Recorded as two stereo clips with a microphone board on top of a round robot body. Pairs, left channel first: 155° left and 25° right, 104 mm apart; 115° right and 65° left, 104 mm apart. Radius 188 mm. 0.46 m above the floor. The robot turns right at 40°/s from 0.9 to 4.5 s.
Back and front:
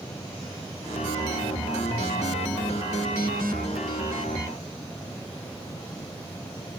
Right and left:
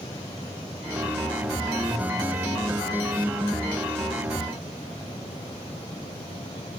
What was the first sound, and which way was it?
Only background noise.